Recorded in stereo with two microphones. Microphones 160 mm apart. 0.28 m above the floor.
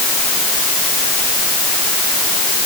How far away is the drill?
No drill in this recording.